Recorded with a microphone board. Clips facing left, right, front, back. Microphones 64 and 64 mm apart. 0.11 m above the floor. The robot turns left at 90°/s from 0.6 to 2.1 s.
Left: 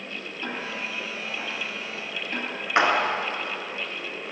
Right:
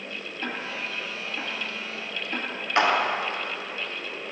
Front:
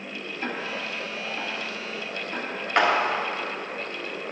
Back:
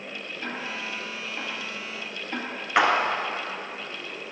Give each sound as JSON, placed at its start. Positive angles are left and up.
{"t": 0.4, "sound": "ticking", "azimuth_deg": -55, "distance_m": 2.5}
{"t": 2.8, "sound": "a clap", "azimuth_deg": 105, "distance_m": 1.0}